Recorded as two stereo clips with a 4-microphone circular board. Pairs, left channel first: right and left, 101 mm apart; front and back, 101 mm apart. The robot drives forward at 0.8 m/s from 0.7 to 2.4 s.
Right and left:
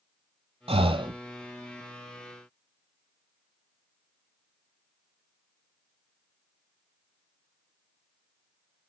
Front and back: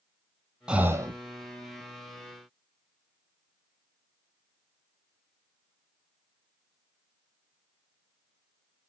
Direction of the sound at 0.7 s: 100° left.